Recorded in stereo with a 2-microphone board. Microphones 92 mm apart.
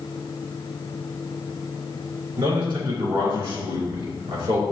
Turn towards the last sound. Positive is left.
turn(degrees=-60)  # may be behind; listen again after turning